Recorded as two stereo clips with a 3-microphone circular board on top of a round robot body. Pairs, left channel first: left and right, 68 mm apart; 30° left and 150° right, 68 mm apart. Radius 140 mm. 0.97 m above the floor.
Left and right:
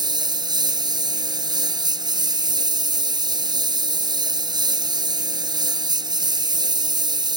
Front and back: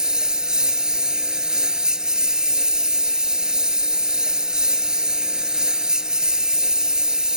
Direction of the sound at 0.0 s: 70° right.